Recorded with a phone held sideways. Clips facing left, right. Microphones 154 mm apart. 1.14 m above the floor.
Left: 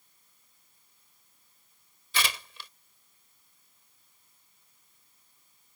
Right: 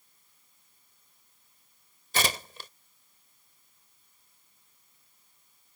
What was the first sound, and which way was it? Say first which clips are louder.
Tearing paper: right 4 dB; 40° right (ahead or behind).